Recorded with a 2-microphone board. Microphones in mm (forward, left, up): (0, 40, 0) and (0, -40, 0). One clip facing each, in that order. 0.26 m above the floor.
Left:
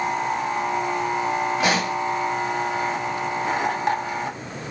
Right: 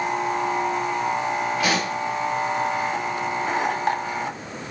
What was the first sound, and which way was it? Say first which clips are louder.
A pop: left 1 dB; 20° left (ahead or behind).